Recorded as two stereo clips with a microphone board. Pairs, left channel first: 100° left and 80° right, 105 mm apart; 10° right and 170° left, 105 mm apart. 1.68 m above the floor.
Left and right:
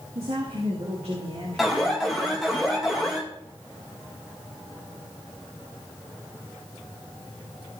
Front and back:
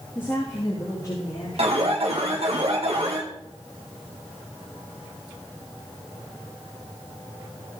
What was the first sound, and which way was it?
A woman speaking, 75° right.